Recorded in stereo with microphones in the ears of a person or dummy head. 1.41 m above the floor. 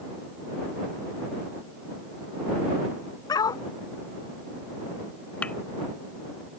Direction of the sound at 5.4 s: 10° left (ahead or behind).